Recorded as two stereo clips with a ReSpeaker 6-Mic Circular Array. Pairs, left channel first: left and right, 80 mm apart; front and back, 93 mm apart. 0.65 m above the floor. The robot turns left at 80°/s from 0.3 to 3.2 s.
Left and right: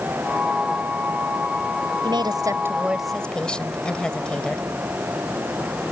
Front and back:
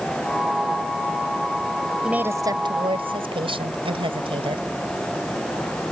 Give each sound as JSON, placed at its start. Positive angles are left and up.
{"t": 2.0, "sound": "a woman speaking", "azimuth_deg": -100}